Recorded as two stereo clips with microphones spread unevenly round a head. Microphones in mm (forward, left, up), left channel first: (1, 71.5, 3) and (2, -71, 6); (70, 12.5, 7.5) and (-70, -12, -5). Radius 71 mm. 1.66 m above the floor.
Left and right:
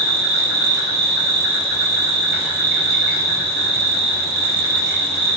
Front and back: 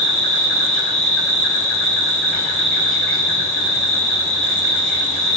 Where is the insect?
75° right, 1.4 m.